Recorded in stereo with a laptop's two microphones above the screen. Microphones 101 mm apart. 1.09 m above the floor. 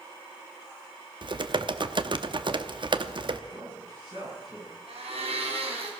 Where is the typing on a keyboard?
50° right (ahead or behind), 0.7 m.